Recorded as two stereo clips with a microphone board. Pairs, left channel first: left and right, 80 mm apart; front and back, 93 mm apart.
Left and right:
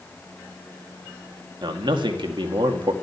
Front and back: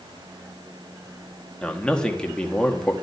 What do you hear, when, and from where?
1.6 s a man speaking: 80° right, 2.0 m